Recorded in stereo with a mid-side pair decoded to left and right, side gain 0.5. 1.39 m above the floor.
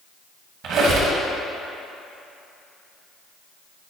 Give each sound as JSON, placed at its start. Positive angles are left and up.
{"t": 0.6, "sound": "a squeak", "azimuth_deg": -70, "distance_m": 1.3}